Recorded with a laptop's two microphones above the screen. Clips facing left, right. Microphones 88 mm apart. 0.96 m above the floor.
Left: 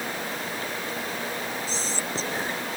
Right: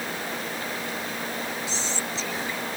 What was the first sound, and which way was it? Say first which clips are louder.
Whispering: even; 40° left (ahead or behind).